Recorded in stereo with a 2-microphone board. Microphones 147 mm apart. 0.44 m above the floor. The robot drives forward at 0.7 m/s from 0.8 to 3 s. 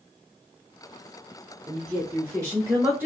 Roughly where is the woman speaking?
Right.